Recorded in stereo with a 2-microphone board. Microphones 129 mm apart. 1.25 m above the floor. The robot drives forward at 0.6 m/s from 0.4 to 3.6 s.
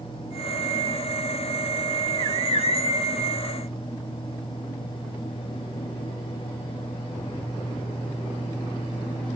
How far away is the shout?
I don't hear a shout.